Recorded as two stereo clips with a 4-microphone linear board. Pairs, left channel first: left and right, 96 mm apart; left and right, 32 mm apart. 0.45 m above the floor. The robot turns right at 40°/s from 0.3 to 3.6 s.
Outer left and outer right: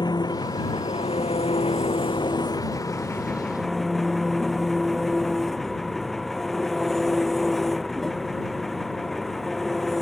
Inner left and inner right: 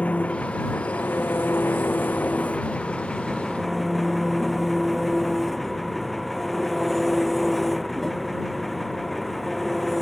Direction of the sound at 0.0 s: 45° left.